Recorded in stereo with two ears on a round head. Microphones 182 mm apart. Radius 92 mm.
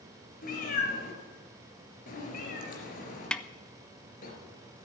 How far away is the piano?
I don't hear a piano.